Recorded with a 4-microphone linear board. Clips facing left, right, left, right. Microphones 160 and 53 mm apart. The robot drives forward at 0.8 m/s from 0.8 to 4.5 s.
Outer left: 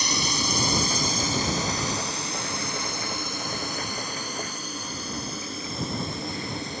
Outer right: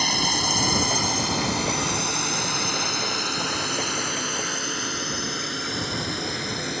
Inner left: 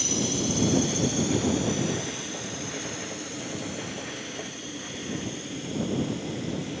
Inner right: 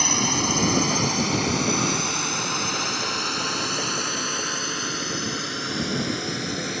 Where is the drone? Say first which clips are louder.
Outer right 2 dB, inner right 4 dB; 60° right (ahead or behind); by 6.8 s 75° right (ahead or behind).